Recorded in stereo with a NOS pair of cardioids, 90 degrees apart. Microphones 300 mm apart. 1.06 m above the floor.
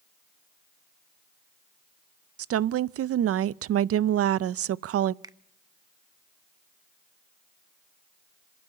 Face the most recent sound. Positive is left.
turn(degrees=-15)